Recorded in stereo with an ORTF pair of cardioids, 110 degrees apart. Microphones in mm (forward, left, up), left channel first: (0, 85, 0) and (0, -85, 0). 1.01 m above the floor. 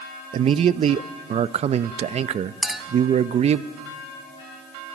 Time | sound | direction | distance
0.3 | a man speaking | 40° right | 0.7 m
2.6 | a clink | straight ahead | 1.1 m